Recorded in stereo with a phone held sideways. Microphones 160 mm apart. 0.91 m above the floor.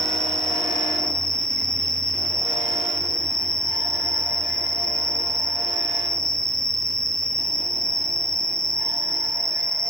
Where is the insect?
65° left (ahead or behind), 1.2 m.